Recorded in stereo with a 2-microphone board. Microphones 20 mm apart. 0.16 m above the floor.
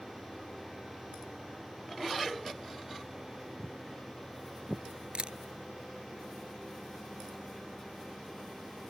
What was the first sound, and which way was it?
Footsteps, 10° left (ahead or behind).